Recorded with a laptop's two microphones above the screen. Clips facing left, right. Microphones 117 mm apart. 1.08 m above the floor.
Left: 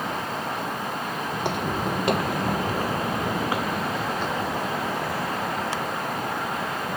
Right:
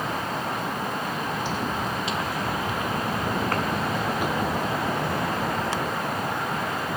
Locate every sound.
1.3 s footsteps: 65° left (ahead or behind); by 6.1 s 30° right (ahead or behind)